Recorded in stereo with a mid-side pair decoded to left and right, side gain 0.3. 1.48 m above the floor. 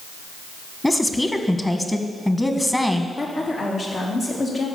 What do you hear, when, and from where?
0.8 s a woman speaking: 15° left, 1.7 m
3.2 s a woman speaking: 65° left, 3 m